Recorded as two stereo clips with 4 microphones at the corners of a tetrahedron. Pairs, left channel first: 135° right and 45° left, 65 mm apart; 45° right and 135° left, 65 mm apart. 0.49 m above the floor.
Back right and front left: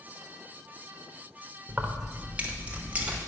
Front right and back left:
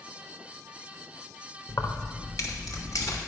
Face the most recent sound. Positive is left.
turn(degrees=-25)